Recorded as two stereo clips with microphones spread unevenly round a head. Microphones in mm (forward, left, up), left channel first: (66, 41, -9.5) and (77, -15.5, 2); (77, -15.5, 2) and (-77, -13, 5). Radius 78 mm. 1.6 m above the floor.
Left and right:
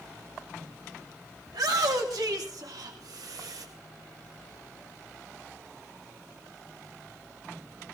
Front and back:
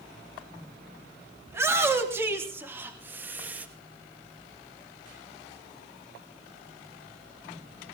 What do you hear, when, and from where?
1.5 s a shout: 105° right, 3 m; by 3.7 s 100° right, 2.0 m